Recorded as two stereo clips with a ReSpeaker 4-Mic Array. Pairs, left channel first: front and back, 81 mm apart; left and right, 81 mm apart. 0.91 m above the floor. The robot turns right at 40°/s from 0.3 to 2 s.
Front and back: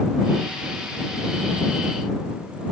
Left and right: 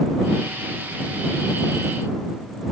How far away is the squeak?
I don't hear a squeak.